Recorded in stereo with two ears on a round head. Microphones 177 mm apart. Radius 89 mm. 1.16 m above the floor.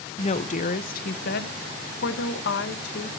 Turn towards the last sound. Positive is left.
turn(degrees=60)  # may be behind; listen again after turning